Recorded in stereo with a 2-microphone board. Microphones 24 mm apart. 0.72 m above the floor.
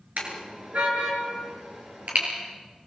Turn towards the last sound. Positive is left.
turn(degrees=-80)